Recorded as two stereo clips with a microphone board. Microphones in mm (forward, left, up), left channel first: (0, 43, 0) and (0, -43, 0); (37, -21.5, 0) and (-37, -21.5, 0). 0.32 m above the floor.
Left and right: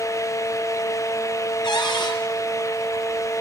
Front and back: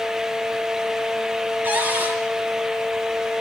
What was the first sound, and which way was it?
A cupboard door, 115° left.